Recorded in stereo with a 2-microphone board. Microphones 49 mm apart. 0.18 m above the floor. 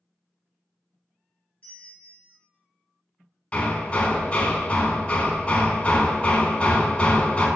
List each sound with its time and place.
1.6 s a bell: 25° left (ahead or behind), 1.1 m
3.5 s hammering: 25° left (ahead or behind), 0.8 m